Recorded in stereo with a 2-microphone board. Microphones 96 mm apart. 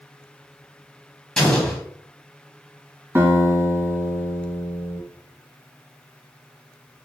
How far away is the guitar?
About 1.6 m.